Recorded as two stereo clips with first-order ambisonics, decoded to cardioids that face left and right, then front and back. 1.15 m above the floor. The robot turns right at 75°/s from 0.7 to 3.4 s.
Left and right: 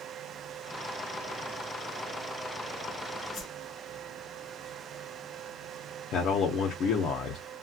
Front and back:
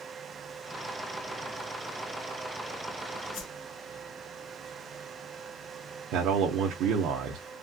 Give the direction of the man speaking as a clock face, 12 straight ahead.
7 o'clock.